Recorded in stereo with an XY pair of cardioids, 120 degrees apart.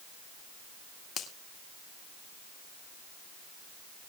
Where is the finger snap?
55° left, 2 m.